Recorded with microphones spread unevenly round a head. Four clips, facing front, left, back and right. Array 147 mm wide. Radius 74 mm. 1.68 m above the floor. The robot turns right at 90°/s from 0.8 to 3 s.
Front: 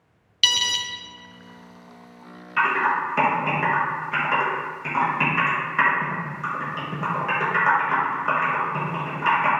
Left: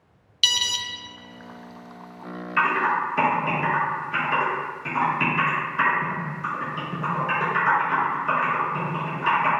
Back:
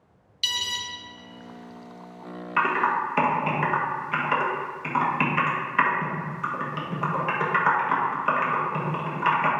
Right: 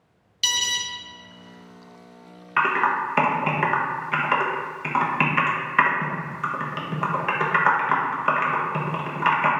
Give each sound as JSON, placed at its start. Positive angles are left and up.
{"t": 0.4, "sound": "an alarm", "azimuth_deg": -5, "distance_m": 0.6}
{"t": 2.6, "sound": "typing on a keyboard", "azimuth_deg": -110, "distance_m": 1.1}